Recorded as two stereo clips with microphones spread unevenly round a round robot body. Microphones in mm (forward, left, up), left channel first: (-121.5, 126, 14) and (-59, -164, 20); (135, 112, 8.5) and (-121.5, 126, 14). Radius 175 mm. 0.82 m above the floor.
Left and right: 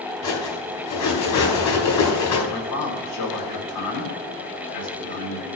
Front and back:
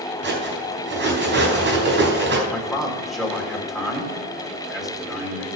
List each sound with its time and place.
0.2 s cutlery clinking: 130° left, 4 m
2.5 s a man speaking: 90° left, 3.5 m